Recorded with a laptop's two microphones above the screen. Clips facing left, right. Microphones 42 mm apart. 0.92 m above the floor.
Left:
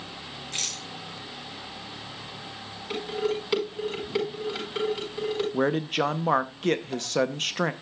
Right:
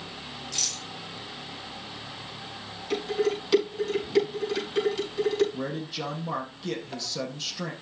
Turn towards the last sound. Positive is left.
turn(degrees=55)  # may be behind; listen again after turning